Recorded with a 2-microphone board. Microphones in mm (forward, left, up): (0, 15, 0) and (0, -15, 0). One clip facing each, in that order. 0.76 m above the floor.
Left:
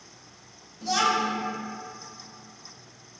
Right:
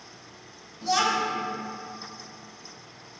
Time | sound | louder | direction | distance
0.8 | a child speaking | even | 5° right (ahead or behind) | 0.6 m